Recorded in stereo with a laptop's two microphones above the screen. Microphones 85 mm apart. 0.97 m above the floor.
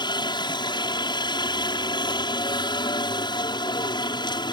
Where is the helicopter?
60° left (ahead or behind).